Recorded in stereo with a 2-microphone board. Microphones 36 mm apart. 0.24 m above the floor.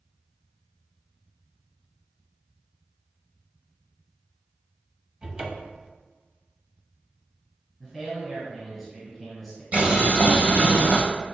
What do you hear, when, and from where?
5.2 s a cupboard door: 25° right (ahead or behind), 0.6 m
7.8 s a man speaking: centre (ahead or behind), 1.6 m
9.7 s boiling: 45° right (ahead or behind), 1.5 m